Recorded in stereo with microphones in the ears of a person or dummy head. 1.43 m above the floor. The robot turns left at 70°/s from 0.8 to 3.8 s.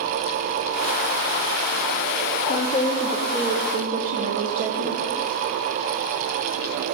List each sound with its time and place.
2.5 s a woman speaking: 45° left, 0.7 m; by 5.1 s 45° right, 0.7 m